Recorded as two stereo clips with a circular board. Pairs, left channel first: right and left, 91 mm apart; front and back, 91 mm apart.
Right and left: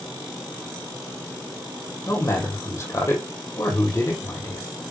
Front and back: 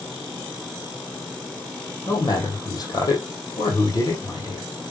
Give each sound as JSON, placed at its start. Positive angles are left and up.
{"t": 2.1, "sound": "a man speaking", "azimuth_deg": -35, "distance_m": 3.0}